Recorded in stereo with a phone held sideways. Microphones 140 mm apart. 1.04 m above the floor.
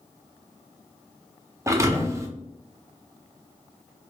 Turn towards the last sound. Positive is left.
turn(degrees=-20)  # may be behind; listen again after turning